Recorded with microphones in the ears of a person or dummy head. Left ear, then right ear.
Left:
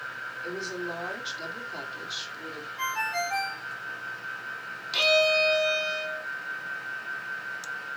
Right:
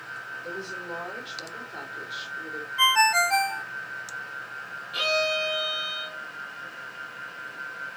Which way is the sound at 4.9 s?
30° left (ahead or behind).